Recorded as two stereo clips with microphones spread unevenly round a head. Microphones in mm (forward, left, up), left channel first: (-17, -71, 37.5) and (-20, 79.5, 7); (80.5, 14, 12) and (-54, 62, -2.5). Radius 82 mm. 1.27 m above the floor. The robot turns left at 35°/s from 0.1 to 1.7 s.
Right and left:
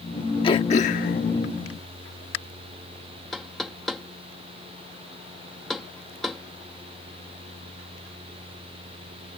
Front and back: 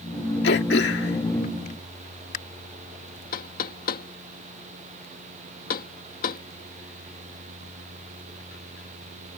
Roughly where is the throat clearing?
Ahead right.